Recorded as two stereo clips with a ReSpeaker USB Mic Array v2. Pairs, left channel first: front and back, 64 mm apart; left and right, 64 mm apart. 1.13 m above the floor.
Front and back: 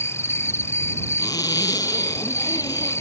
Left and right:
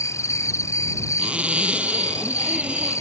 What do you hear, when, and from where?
0.0 s an insect: 45° left
1.2 s a zipper: 15° right